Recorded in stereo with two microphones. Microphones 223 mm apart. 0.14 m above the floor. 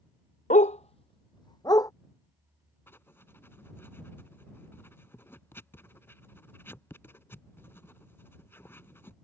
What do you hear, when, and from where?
0.5 s a dog barking: 35° left (ahead or behind); by 1.9 s 15° left (ahead or behind)
2.9 s writing: 10° left (ahead or behind)